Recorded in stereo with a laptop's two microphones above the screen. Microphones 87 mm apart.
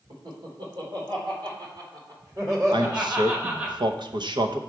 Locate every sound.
0.1 s laughter: 80° right, 2.5 m; by 3.7 s 20° right (ahead or behind), 3 m
2.7 s a man speaking: 60° right (ahead or behind), 0.7 m